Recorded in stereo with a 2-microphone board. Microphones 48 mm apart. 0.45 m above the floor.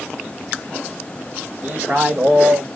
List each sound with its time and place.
1.6 s a man speaking: 40° right (ahead or behind), 1.9 m; by 2.7 s 50° right (ahead or behind), 2.5 m